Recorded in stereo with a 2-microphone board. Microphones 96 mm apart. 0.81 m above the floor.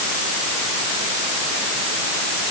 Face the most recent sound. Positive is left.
No sound to turn to.